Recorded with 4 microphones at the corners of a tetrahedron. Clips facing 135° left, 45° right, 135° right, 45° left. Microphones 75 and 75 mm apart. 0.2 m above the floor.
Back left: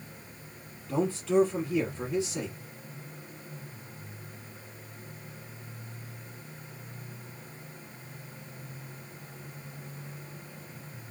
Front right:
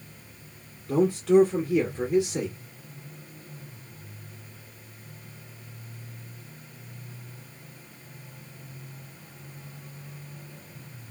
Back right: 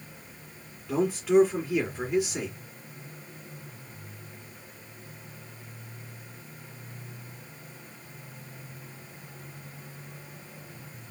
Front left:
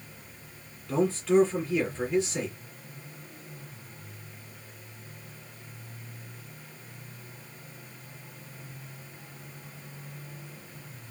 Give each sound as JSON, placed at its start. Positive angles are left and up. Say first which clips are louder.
{"t": 0.9, "sound": "a man speaking", "louder": "front right 6 dB, back right 1 dB", "azimuth_deg": -50, "distance_m": 2.5}